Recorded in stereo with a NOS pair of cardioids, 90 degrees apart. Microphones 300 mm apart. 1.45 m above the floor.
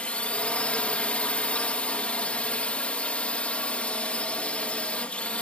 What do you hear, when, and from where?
0.0 s a drone: 5° left